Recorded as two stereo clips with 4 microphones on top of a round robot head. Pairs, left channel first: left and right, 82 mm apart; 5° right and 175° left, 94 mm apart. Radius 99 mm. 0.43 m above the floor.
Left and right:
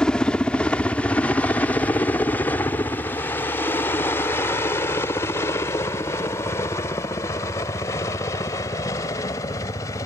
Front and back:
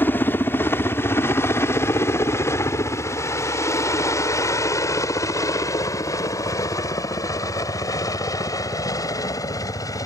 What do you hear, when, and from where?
0.0 s a helicopter: 20° left; by 10.1 s 40° left